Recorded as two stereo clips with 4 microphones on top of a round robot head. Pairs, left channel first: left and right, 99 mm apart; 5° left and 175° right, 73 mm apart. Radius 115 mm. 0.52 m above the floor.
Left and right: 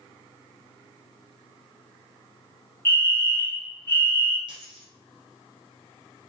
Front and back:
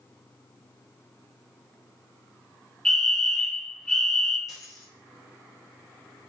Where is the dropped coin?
50° right, 2 m.